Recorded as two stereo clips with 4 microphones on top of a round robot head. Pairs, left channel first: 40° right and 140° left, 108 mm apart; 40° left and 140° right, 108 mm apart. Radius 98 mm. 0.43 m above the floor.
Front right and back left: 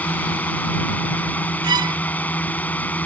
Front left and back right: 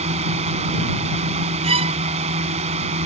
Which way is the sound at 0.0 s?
120° right.